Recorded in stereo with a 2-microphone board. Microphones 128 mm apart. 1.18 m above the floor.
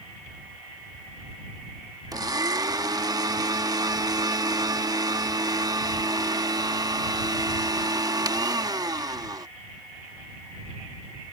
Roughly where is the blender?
Right.